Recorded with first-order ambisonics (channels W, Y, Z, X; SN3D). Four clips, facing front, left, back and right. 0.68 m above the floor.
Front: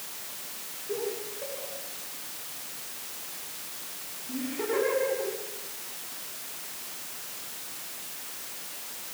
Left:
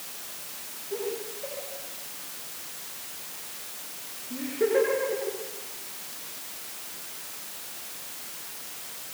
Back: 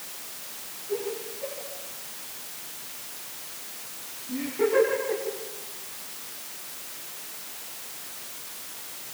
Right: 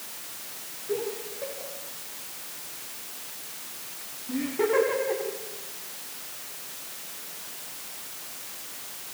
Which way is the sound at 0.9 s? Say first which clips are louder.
Right 2 dB, back 2 dB; 70° right.